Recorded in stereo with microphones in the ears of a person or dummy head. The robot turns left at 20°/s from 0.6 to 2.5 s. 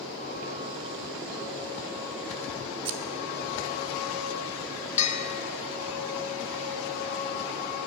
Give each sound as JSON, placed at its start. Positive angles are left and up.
{"t": 2.9, "sound": "scissors", "side_deg": -30, "distance_m": 0.6}
{"t": 5.0, "sound": "a bell", "side_deg": 35, "distance_m": 0.9}